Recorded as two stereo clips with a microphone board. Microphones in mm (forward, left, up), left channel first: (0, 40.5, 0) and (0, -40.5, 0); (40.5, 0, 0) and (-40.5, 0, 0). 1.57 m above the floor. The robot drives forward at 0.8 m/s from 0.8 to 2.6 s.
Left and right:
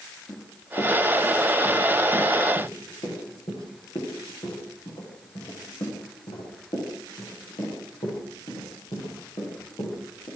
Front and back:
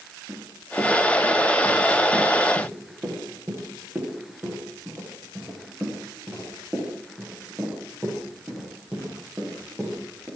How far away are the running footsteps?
About 10 m.